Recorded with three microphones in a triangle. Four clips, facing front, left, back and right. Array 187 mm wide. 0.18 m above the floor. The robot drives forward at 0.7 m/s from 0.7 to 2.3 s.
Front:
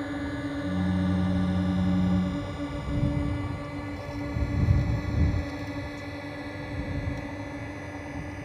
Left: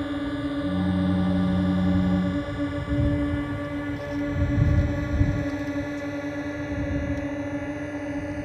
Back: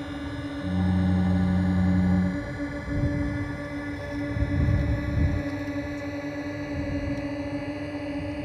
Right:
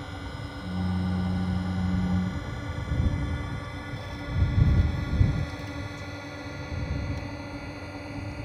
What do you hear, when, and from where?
0.0 s a drone: 85° left; by 8.5 s 135° left